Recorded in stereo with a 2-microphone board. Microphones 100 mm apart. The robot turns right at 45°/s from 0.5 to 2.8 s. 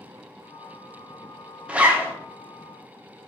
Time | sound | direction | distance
1.7 | a zipper | 10° right (ahead or behind) | 0.5 m